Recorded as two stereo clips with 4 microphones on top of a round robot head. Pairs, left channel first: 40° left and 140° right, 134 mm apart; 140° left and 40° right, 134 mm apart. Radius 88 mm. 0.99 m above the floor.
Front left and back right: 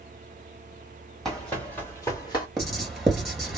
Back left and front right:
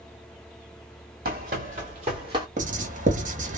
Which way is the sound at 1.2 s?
45° right.